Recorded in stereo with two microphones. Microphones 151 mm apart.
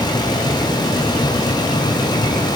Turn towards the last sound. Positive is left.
No sound to turn to.